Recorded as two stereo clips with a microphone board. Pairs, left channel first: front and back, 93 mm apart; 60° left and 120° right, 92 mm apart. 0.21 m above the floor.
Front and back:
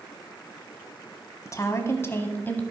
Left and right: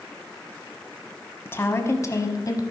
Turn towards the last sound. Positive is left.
turn(degrees=60)